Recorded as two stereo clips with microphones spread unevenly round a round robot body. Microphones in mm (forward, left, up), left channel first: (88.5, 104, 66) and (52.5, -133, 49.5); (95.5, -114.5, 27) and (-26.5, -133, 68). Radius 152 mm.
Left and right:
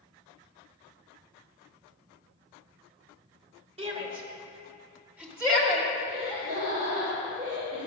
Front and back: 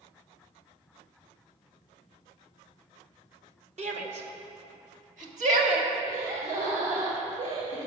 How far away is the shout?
About 1.9 m.